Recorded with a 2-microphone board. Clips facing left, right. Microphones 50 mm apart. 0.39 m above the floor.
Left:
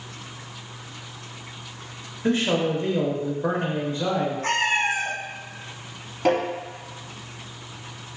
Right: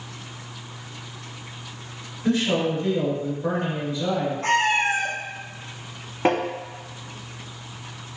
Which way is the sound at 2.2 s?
40° left (ahead or behind).